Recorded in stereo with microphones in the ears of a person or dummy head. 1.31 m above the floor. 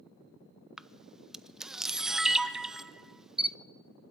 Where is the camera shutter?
5° right (ahead or behind), 0.6 m.